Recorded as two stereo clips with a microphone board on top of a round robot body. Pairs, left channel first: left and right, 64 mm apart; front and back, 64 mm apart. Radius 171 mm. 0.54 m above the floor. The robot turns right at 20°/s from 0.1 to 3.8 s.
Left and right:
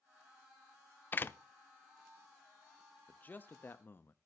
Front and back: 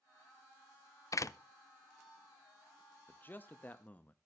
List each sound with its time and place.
1.1 s a door slam: 30° left, 0.6 m; by 1.4 s 35° left, 0.6 m
3.1 s a man speaking: 40° left, 0.8 m; by 4.2 s 55° left, 0.8 m